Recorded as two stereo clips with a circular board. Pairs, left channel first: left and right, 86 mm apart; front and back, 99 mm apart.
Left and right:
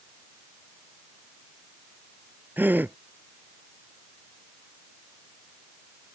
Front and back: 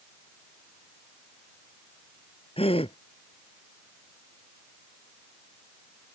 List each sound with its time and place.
2.6 s a gasp: 20° right